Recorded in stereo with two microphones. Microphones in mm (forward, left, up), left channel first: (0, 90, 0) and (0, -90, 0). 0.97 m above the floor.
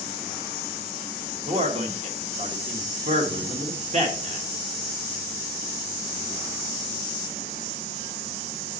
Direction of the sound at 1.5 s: 40° right (ahead or behind).